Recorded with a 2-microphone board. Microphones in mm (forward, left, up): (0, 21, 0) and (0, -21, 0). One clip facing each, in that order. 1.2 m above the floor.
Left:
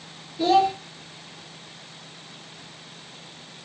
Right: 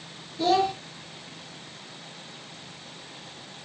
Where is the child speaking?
10° left (ahead or behind), 0.5 m.